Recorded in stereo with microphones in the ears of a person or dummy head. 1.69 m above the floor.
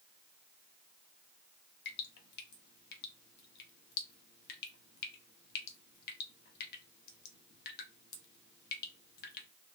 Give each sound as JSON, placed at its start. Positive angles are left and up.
{"t": 1.9, "sound": "dripping", "side_deg": 60, "distance_m": 0.6}